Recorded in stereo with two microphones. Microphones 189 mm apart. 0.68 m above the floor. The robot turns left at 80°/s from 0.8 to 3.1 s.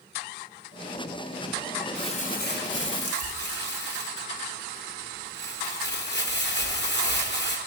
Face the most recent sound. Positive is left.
turn(degrees=65)